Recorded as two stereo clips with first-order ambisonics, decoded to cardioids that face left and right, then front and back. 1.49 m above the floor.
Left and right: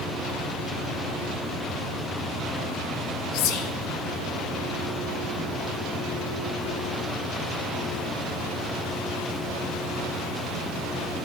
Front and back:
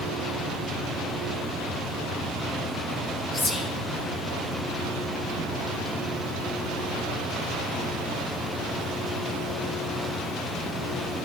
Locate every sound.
3.3 s whispering: 75° left, 1.0 m